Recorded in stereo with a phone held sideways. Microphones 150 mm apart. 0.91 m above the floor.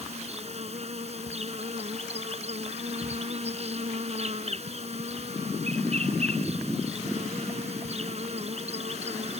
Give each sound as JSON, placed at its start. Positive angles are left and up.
{"t": 0.0, "sound": "an insect", "side_deg": -45}